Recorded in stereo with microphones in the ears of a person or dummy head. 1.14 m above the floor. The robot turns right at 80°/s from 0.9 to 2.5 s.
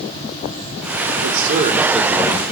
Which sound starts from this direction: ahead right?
A man speaking, at 1.2 s.